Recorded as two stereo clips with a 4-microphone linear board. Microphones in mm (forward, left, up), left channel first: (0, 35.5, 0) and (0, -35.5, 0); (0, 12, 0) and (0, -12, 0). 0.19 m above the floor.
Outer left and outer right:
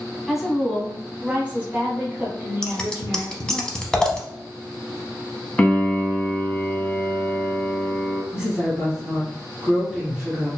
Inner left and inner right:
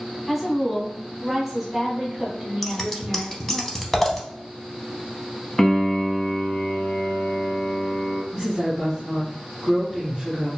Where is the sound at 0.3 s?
Centre (ahead or behind), 1.0 m; by 3.6 s 30° right (ahead or behind), 1.7 m.